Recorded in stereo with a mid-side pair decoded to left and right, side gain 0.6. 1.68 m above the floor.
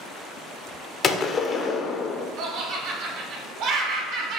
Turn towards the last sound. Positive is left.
turn(degrees=-65)